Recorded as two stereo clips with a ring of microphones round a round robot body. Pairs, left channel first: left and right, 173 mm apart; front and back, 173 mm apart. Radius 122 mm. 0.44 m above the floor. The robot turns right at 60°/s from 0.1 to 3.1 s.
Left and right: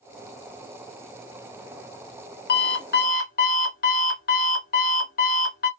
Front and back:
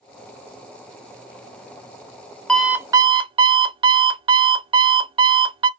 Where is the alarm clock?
85° left, 0.6 m; by 5.7 s 125° left, 0.6 m.